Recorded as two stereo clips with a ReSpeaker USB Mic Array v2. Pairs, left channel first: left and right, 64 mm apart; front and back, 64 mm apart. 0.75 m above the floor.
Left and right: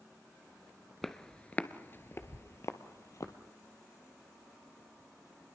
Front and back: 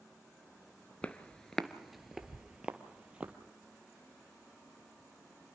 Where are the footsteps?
10° left, 0.7 m; by 3.4 s 115° left, 1.3 m.